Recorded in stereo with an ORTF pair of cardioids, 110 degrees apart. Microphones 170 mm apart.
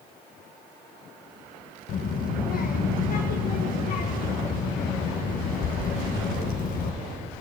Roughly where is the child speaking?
Ahead left.